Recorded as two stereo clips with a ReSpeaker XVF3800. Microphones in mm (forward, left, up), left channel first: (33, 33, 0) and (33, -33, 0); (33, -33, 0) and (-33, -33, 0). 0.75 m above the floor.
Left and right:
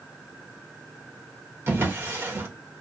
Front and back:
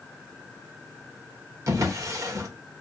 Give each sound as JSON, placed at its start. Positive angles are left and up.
{"t": 1.7, "sound": "a drawer", "azimuth_deg": -140, "distance_m": 0.8}